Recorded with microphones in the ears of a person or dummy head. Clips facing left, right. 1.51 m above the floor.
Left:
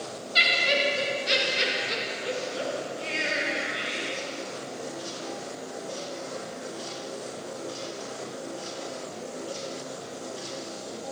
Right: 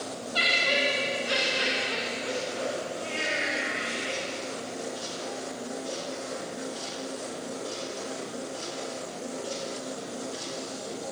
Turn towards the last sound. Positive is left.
turn(degrees=30)  # may be behind; listen again after turning